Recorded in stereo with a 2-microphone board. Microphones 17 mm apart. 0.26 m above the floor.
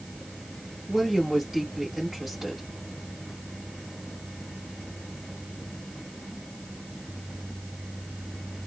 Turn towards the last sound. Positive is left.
turn(degrees=-20)  # may be behind; listen again after turning